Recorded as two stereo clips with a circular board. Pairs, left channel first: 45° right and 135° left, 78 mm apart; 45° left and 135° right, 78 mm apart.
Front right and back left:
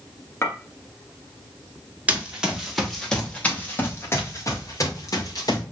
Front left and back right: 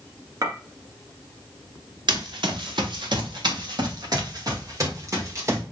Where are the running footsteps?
150° right, 2 m; by 5.6 s 80° right, 3.5 m.